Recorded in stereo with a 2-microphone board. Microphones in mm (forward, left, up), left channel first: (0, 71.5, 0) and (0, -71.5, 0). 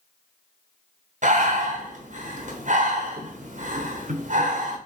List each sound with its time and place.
1.2 s breathing: 60° right (ahead or behind), 1.1 m